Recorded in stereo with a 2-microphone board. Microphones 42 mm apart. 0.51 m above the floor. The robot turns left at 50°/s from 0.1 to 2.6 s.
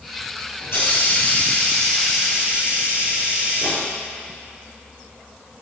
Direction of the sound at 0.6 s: 65° left.